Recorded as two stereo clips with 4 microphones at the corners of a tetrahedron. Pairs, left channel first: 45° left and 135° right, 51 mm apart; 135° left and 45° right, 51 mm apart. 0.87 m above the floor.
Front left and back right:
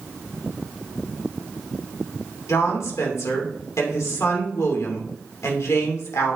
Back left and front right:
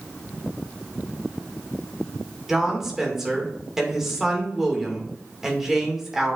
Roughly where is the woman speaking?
Ahead left.